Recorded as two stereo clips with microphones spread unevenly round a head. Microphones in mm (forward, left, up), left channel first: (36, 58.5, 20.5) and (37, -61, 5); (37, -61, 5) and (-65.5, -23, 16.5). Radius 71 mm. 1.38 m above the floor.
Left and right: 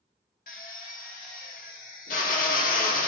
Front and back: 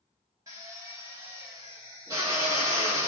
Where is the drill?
90° left, 0.7 m.